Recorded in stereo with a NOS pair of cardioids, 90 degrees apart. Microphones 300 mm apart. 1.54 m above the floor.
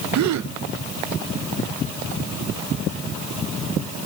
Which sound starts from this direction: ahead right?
A gasp, at 0.1 s.